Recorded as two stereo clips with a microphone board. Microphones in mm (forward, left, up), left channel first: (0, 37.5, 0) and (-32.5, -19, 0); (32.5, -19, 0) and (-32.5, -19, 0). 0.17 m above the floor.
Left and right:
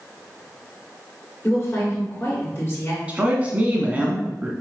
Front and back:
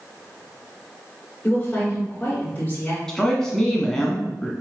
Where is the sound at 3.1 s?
75° right, 1.2 m.